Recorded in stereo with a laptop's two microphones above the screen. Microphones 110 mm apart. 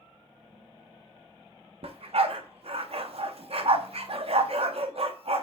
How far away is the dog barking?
About 0.5 m.